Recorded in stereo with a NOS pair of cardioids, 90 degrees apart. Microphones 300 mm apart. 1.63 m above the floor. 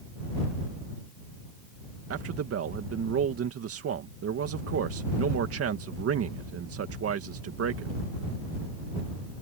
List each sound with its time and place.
2.1 s a man speaking: 55° right